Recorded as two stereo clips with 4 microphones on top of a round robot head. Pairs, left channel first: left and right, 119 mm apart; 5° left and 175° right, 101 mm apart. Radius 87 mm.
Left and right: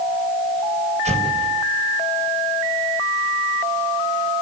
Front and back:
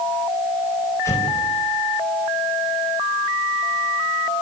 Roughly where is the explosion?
Ahead right.